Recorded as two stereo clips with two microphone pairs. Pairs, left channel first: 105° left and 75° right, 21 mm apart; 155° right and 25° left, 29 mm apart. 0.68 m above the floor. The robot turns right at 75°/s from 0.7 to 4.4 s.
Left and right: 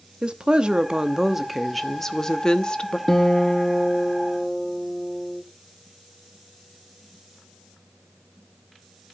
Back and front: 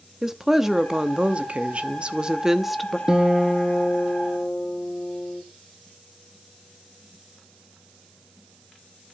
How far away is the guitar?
About 0.7 m.